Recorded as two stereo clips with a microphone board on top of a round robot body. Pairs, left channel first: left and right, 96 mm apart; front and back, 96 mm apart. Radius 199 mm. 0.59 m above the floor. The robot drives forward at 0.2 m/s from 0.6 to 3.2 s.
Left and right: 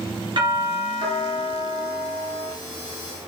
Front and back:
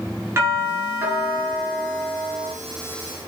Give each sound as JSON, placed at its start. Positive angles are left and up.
{"t": 0.4, "sound": "a doorbell", "azimuth_deg": -120, "distance_m": 7.0}